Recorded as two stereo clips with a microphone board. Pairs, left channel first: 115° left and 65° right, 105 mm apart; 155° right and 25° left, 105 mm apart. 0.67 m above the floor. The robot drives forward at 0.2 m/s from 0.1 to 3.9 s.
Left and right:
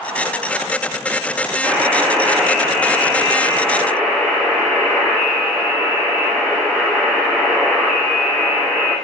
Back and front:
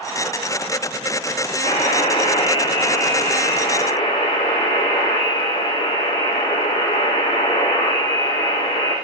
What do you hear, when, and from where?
1.6 s a buzzer: 160° right, 5 m